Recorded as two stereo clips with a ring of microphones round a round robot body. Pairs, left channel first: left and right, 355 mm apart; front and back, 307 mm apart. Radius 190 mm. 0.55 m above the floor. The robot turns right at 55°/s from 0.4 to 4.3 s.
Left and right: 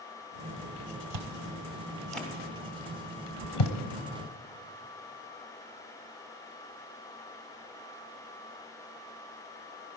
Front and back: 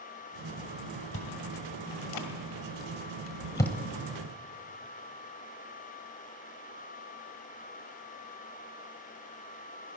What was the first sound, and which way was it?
Chewing, 55° right.